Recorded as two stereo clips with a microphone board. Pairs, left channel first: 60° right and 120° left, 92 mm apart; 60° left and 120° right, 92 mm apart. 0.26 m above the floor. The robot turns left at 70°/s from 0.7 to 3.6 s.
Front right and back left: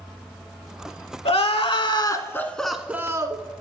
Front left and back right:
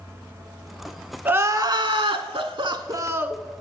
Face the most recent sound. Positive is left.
turn(degrees=145)